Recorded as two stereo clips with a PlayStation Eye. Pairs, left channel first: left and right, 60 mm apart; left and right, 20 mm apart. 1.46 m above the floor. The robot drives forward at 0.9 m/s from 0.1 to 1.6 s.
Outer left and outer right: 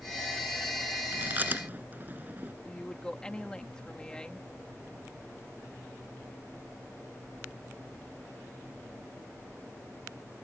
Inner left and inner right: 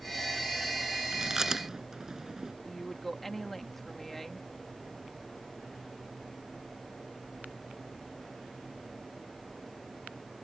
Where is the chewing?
30° right (ahead or behind).